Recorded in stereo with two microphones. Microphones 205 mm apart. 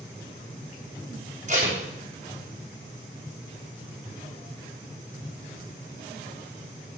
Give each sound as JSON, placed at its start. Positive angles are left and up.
{"t": 1.5, "sound": "tape being pulled", "side_deg": -35, "distance_m": 4.0}